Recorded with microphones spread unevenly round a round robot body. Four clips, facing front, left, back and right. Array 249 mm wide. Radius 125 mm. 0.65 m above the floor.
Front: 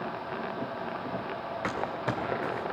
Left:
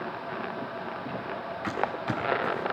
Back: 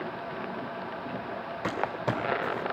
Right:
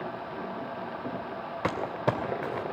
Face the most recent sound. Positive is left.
turn(degrees=-100)